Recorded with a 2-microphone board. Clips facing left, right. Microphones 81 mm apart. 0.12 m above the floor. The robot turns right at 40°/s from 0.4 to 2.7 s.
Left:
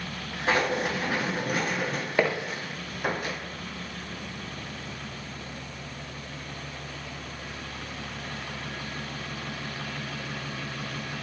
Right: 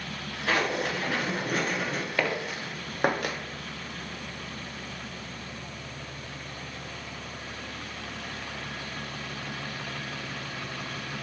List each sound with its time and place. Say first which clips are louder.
0.5 s writing: left 2 dB; 25° left (ahead or behind), 1.0 m; by 2.0 s centre (ahead or behind), 1.0 m
2.2 s footsteps: left 5 dB; 20° left (ahead or behind), 0.8 m; by 3.4 s 65° right (ahead or behind), 1.4 m